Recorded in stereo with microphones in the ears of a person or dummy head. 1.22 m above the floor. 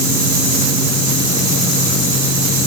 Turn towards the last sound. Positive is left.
No sound to turn to.